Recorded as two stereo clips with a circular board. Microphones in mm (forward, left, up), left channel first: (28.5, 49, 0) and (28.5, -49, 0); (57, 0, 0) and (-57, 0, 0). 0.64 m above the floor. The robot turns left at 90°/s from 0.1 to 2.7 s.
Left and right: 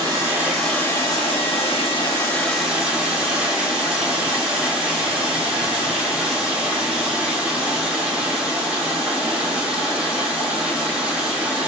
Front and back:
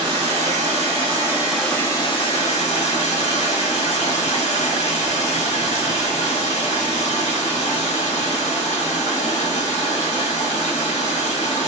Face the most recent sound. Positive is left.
turn(degrees=-10)